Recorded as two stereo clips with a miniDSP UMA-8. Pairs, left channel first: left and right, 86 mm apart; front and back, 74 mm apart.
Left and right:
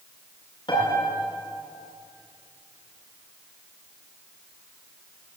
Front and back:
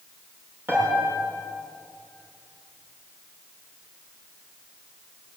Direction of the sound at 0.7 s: 120° left.